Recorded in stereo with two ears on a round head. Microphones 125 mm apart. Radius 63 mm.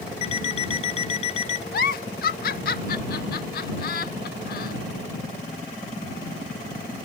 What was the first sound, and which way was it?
An alarm clock, 45° left (ahead or behind).